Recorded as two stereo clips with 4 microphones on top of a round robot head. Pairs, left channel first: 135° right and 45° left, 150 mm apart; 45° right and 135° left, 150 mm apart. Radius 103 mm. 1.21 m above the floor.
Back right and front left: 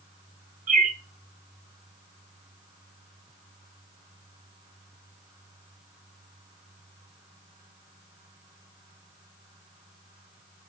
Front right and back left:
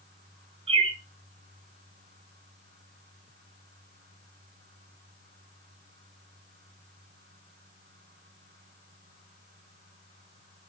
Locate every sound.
0.7 s a bird: 80° left, 2 m